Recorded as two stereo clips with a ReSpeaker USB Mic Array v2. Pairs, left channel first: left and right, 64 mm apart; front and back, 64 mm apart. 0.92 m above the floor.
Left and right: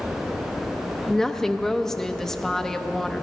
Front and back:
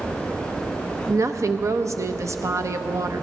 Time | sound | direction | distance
1.1 | a woman speaking | 170° left | 0.7 m